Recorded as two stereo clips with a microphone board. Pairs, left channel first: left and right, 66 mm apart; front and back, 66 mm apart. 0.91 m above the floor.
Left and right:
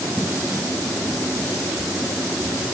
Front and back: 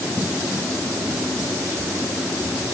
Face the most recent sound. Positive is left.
No sound to turn to.